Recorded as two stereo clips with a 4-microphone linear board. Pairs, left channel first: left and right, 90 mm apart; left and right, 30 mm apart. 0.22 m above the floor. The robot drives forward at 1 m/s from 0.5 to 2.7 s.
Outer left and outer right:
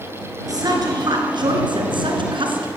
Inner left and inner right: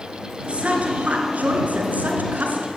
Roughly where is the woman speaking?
Right.